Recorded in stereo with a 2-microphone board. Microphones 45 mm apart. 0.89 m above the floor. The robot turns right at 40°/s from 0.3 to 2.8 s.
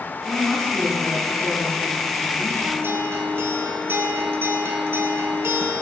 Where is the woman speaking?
Straight ahead, 7 m; by 2.7 s 95° left, 7 m.